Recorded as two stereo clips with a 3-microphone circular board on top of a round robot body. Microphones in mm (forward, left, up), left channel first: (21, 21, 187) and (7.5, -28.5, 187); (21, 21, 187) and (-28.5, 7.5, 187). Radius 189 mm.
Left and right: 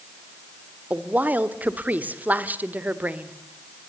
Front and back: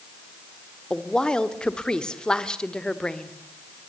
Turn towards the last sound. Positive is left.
turn(degrees=-55)